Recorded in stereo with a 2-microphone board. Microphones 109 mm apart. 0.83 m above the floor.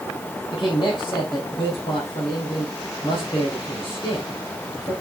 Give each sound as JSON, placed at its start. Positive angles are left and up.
{"t": 0.5, "sound": "a man speaking", "side_deg": 50, "distance_m": 4.0}